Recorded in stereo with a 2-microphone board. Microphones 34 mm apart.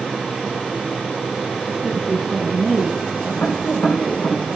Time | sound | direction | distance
1.8 | a woman speaking | 5° left (ahead or behind) | 6.5 m
3.4 | tapping | 65° left (ahead or behind) | 9 m